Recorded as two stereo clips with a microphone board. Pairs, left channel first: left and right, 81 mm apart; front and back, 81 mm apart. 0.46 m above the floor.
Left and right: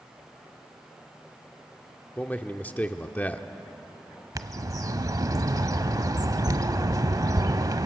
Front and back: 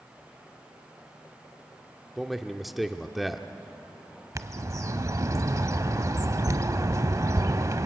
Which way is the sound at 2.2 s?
95° left.